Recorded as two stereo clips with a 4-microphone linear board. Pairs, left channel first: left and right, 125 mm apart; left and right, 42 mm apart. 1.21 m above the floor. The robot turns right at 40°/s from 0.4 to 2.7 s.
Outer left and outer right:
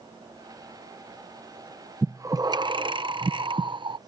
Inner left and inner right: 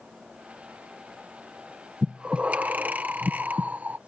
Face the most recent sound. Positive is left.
turn(degrees=-40)  # may be behind; listen again after turning